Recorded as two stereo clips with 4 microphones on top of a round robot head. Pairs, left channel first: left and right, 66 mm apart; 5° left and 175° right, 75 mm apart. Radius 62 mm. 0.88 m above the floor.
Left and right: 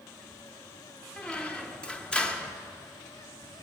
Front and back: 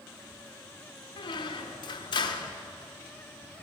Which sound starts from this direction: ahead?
A squeak, at 1.2 s.